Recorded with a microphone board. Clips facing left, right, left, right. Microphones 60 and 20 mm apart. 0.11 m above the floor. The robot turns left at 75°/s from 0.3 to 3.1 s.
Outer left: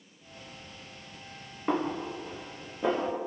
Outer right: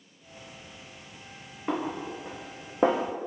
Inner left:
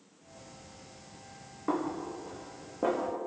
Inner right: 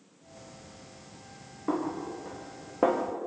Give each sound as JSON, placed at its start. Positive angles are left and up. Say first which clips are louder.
{"t": 1.7, "sound": "a snare drum", "louder": "outer left 1 dB, inner right 1 dB", "side_deg": 5, "distance_m": 4.0}